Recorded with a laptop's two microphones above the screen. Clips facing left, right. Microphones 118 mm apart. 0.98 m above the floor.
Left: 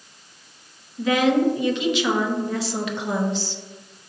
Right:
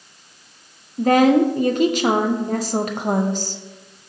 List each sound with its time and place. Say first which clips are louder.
1.0 s a woman speaking: right 5 dB; 45° right (ahead or behind), 0.5 m